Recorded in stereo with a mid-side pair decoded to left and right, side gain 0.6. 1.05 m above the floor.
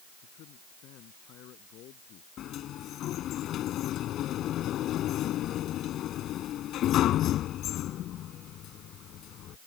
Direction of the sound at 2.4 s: 55° left.